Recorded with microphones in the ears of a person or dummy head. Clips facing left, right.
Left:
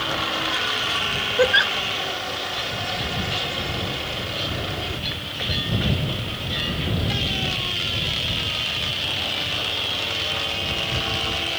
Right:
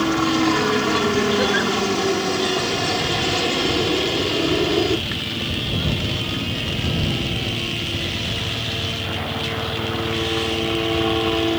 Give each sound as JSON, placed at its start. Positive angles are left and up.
{"t": 0.0, "sound": "a helicopter", "side_deg": -70}
{"t": 1.4, "sound": "a giggle", "side_deg": 70}